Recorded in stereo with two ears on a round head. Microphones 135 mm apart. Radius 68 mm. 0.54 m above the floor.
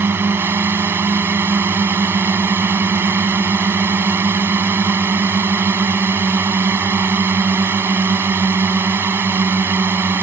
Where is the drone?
15° right (ahead or behind).